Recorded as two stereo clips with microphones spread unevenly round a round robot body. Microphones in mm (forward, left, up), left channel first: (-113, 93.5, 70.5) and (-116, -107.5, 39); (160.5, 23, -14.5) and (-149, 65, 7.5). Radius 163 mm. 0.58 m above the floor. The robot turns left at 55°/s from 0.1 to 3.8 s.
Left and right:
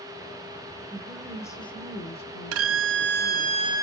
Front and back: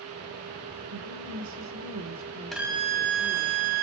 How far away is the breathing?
No breathing in this recording.